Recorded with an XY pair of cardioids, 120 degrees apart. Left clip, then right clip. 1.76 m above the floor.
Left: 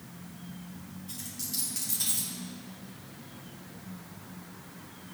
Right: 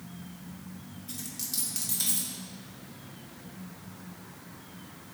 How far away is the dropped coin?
About 3.5 m.